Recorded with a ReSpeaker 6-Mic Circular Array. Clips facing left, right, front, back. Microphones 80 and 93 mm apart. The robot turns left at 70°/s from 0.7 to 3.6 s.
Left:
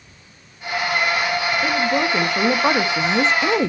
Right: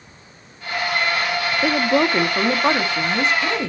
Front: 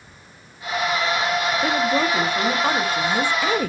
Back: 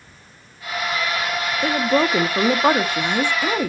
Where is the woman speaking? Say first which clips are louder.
Right 5 dB, back 5 dB; 125° right, 0.7 m; by 3.7 s 95° left, 0.7 m.